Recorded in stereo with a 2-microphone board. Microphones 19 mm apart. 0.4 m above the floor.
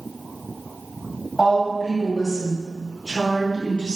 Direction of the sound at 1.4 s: 30° right (ahead or behind).